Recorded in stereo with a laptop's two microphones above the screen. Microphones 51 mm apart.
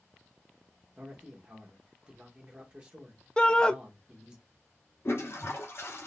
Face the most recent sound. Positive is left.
turn(degrees=55)  # may be behind; listen again after turning